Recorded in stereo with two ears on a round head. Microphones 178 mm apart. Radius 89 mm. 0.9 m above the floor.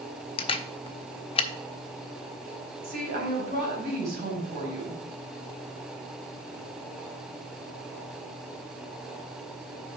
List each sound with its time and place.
0.4 s a camera shutter: 30° left (ahead or behind), 0.6 m
2.8 s a woman speaking: 55° right (ahead or behind), 4 m